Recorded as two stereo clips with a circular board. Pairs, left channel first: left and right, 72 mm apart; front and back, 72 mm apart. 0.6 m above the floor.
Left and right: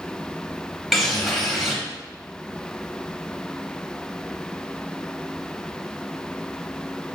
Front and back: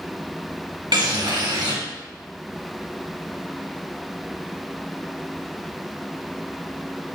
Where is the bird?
175° right, 1.0 m.